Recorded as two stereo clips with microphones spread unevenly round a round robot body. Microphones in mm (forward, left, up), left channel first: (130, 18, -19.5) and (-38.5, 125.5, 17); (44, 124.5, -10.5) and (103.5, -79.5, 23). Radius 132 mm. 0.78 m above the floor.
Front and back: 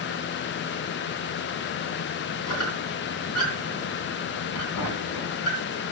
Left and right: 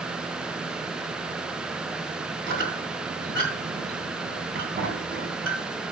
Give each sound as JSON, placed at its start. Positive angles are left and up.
{"t": 2.5, "sound": "a squeak", "azimuth_deg": -40, "distance_m": 2.5}